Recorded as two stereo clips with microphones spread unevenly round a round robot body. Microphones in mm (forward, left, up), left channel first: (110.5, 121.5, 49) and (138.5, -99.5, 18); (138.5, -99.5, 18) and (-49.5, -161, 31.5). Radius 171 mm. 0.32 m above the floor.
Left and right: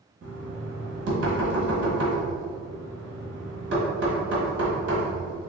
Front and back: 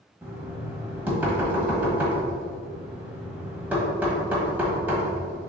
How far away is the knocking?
About 1.6 m.